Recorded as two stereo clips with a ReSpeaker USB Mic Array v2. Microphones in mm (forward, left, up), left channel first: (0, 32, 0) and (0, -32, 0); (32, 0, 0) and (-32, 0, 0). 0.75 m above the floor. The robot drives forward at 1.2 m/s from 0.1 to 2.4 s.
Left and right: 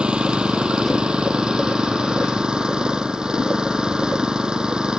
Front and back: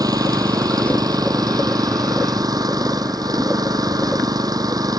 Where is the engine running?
165° right; by 5.0 s 170° right.